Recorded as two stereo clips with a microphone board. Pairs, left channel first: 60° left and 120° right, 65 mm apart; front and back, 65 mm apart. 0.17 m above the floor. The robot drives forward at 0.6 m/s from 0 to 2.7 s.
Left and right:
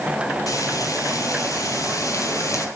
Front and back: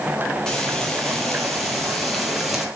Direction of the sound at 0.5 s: 80° left.